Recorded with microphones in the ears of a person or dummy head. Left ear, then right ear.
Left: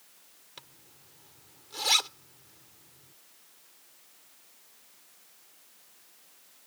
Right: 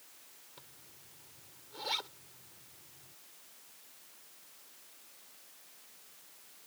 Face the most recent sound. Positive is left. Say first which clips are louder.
# left 9 dB
turn(degrees=75)  # may be behind; listen again after turning